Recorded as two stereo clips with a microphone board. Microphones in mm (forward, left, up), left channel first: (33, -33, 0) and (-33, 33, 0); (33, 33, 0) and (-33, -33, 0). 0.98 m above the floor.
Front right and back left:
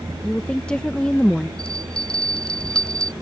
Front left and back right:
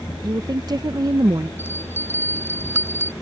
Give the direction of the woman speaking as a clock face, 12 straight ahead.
4 o'clock.